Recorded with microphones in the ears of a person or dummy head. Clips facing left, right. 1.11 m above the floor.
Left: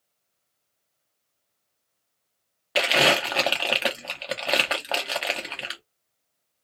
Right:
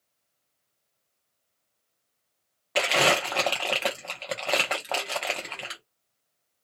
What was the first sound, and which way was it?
Crumpling, 10° left (ahead or behind).